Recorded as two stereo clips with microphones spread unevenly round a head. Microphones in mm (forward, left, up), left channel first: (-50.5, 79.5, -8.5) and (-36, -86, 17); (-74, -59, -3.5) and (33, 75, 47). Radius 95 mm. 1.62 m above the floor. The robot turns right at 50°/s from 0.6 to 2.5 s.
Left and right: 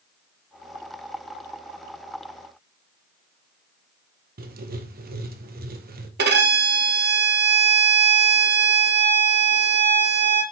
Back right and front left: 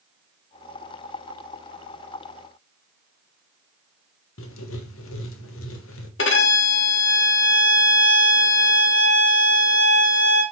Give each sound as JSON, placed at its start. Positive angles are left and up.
{"t": 4.4, "sound": "writing", "azimuth_deg": -115, "distance_m": 1.5}
{"t": 6.2, "sound": "a violin", "azimuth_deg": -100, "distance_m": 1.7}